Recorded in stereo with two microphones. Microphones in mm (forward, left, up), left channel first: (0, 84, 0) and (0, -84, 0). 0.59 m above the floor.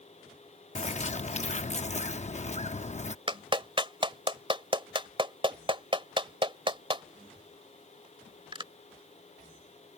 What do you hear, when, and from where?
0.8 s a bird: 45° left (ahead or behind)
3.3 s a clap: 30° right (ahead or behind)